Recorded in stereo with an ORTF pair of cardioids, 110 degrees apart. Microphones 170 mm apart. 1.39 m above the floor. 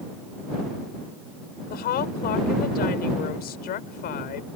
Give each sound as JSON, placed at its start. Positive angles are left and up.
{"t": 1.7, "sound": "a woman speaking", "azimuth_deg": 65}